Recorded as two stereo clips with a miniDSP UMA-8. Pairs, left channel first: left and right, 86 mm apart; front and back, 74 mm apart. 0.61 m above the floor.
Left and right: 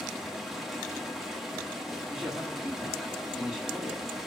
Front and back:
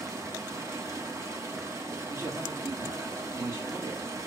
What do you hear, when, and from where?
0.0 s running water: straight behind, 1.1 m
2.1 s a man speaking: 165° right, 1.4 m